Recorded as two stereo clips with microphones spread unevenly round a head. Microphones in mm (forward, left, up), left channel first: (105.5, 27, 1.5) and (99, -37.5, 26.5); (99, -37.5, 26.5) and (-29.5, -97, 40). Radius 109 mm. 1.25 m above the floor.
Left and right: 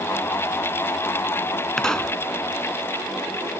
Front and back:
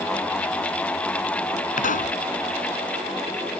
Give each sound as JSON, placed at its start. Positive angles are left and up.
{"t": 1.8, "sound": "a pop", "azimuth_deg": 0}